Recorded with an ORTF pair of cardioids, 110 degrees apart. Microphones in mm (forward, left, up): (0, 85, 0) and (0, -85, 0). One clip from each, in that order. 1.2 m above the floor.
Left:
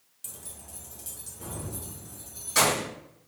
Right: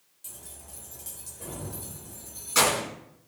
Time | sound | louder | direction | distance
0.2 | keys jangling | left 2 dB | 35° left | 0.8 m